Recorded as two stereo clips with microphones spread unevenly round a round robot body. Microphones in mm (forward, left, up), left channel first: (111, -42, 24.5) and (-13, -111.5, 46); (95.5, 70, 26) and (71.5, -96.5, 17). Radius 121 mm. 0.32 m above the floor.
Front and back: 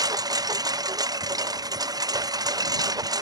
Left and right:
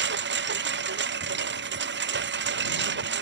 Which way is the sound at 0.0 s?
85° right.